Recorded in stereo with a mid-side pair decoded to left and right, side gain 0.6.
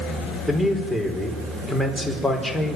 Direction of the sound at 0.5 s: 5° right.